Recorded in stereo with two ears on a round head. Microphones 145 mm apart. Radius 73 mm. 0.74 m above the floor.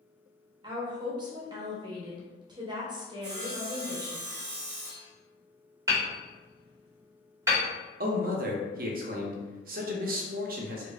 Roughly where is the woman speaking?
Right.